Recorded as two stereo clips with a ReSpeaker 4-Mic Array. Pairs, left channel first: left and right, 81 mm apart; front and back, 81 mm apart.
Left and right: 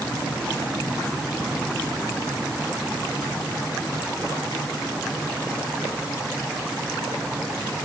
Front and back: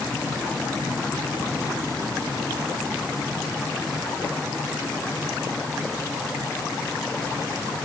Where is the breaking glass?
No breaking glass in this recording.